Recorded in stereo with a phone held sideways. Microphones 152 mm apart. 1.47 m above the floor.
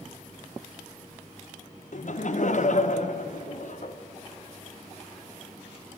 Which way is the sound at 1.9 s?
60° left (ahead or behind).